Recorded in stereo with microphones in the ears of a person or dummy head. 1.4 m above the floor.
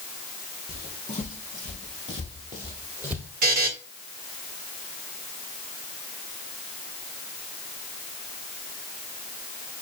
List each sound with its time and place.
0.7 s footsteps: 45° left (ahead or behind), 2.0 m; by 3.3 s 30° right (ahead or behind), 1.5 m
3.4 s a buzzer: 45° right (ahead or behind), 1.0 m